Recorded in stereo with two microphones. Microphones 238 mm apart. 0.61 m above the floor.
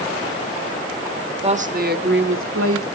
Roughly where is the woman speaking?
Right.